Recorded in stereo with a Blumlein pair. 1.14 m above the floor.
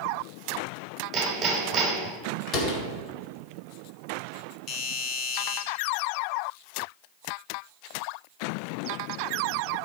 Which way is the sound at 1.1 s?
20° right.